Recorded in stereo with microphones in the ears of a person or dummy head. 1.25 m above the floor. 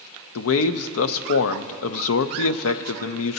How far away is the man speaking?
About 0.5 m.